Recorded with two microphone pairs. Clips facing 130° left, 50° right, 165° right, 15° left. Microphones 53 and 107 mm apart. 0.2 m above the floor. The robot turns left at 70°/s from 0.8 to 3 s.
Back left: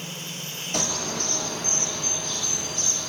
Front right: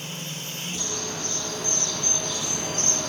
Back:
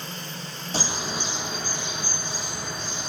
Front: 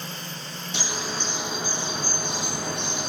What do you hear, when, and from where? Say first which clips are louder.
0.7 s a bird: back left 6 dB, back 2 dB; 150° left, 6.5 m; by 3.1 s 5° right, 6.5 m